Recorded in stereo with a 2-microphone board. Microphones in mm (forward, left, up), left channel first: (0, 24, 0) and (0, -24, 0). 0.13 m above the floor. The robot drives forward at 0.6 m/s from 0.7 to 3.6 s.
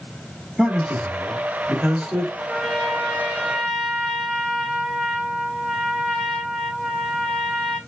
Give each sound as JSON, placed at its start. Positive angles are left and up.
{"t": 0.6, "sound": "a man speaking", "side_deg": -5, "distance_m": 2.0}
{"t": 2.4, "sound": "a trumpet", "side_deg": -10, "distance_m": 1.5}